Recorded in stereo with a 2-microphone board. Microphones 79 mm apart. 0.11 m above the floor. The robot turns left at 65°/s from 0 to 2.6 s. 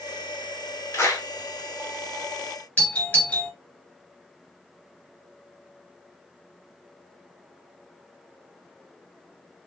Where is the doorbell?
15° left (ahead or behind), 2 m.